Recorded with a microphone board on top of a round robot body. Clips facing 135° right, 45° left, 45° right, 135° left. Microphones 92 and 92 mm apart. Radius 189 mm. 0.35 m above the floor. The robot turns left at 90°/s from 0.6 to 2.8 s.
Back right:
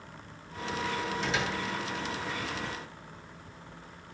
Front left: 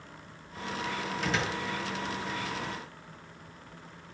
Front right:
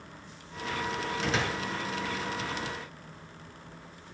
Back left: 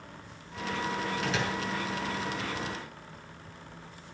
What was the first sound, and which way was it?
A door slam, 15° left.